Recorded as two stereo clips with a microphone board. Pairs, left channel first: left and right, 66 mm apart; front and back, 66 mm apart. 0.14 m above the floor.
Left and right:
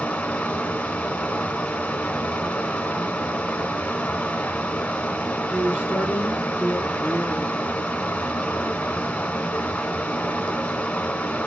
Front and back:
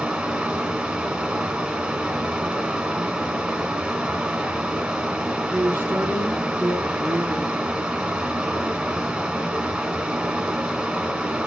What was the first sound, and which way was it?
Running water, 125° left.